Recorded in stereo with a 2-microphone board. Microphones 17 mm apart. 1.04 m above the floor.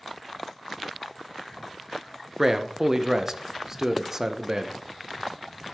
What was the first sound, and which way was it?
A man speaking, 30° right (ahead or behind).